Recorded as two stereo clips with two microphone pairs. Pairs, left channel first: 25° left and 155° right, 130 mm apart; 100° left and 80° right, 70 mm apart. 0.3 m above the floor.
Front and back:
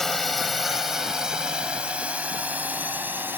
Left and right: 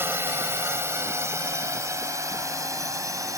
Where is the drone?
60° right; by 3.4 s 85° right.